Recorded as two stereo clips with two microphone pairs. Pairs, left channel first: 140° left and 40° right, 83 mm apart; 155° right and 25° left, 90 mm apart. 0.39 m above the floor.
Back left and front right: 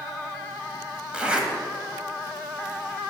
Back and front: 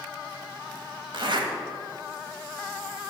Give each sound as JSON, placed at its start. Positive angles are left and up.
{"t": 1.1, "sound": "a zipper", "azimuth_deg": 35, "distance_m": 1.5}